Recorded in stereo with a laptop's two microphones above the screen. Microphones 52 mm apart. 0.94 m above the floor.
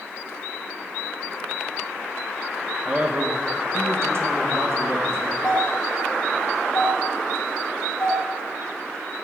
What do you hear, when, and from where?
2.9 s a man speaking: 25° right (ahead or behind), 1.1 m; by 5.3 s 60° right (ahead or behind), 1.9 m
5.4 s a doorbell: 15° left (ahead or behind), 3 m